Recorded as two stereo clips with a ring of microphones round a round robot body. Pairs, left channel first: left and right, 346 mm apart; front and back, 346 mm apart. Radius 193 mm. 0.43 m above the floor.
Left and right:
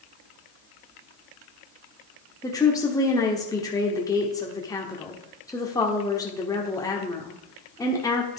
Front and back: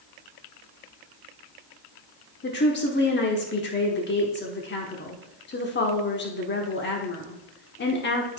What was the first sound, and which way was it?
A woman speaking, 20° left.